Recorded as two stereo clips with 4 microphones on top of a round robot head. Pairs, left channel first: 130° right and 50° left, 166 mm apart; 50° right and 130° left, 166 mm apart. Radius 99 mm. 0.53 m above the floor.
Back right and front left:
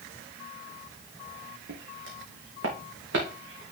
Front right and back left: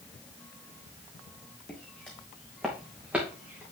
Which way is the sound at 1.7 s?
30° left.